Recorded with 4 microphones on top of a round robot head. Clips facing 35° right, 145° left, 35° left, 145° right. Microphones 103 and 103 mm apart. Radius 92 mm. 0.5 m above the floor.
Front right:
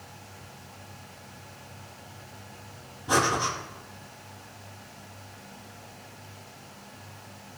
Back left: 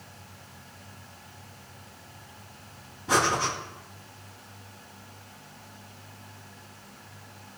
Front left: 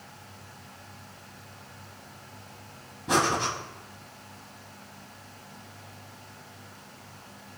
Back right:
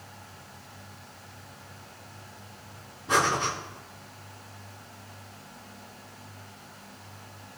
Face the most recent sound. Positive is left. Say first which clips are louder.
# even, even
turn(degrees=30)